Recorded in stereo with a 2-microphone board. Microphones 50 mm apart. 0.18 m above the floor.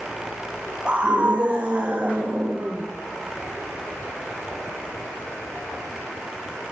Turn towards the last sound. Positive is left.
turn(degrees=-30)  # may be behind; listen again after turning